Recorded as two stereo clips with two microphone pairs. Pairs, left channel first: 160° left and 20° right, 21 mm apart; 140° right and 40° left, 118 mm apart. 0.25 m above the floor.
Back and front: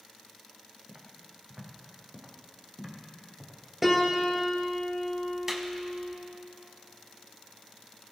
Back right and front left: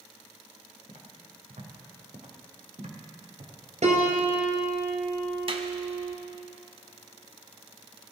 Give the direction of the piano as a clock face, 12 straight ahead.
10 o'clock.